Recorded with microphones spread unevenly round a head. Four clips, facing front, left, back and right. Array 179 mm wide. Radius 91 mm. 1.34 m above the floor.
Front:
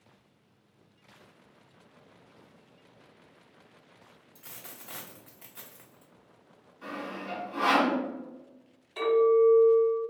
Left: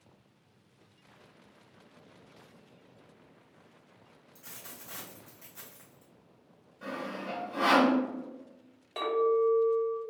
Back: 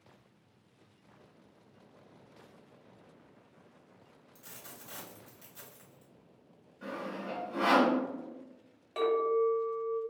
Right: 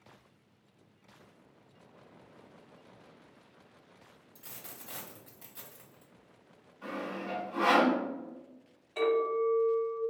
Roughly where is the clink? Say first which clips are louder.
Left 2 dB, front 6 dB; behind left.